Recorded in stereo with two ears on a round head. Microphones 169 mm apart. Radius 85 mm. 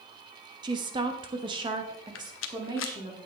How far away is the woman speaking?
About 1.0 m.